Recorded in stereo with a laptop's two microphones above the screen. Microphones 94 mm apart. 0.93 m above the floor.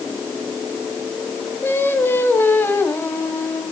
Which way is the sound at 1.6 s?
25° left (ahead or behind).